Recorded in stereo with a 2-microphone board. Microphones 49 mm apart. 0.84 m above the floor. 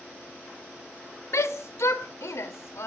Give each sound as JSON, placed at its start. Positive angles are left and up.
{"t": 1.3, "sound": "a shout", "side_deg": 75, "distance_m": 1.5}